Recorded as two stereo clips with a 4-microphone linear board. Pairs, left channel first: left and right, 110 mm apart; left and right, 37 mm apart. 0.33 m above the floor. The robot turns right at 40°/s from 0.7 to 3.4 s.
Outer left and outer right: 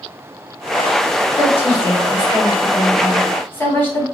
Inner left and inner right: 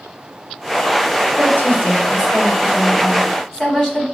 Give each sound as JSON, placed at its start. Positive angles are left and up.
{"t": 1.4, "sound": "a woman speaking", "azimuth_deg": 75, "distance_m": 2.0}